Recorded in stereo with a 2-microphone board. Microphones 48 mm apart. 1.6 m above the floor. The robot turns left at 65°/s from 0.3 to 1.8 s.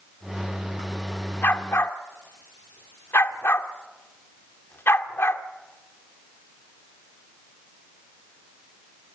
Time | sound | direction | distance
1.4 | a dog barking | 50° left (ahead or behind) | 1.9 m